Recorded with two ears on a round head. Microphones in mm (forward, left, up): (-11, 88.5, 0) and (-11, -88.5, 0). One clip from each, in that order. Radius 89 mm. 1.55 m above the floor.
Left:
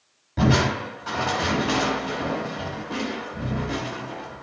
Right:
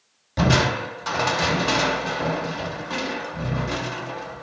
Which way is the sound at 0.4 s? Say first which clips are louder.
Right 2 dB; 75° right (ahead or behind).